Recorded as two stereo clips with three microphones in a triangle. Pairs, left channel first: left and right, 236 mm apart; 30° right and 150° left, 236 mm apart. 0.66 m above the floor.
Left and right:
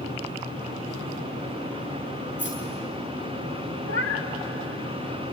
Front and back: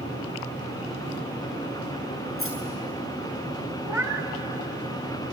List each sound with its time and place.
2.4 s keys jangling: 125° left, 6.5 m
3.8 s a cat meowing: 75° left, 1.7 m